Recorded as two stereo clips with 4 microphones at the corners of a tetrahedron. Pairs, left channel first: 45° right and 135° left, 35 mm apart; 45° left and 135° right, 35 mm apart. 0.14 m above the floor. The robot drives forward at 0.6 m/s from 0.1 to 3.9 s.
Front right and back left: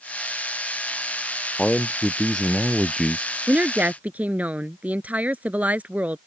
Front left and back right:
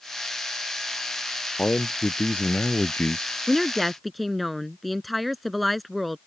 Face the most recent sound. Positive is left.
turn(degrees=135)